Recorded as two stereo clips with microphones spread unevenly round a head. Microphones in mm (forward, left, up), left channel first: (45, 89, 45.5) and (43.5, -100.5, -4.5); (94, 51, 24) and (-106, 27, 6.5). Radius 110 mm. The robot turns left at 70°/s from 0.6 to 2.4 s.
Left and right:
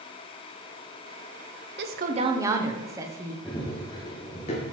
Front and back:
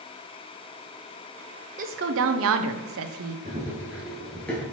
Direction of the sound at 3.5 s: 130° left.